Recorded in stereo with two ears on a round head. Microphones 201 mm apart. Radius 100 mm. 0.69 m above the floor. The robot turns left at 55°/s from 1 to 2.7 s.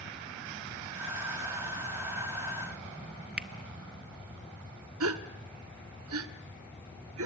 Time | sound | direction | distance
3.4 | a finger snap | 5° right (ahead or behind) | 1.0 m
5.0 | a gasp | 65° right (ahead or behind) | 1.2 m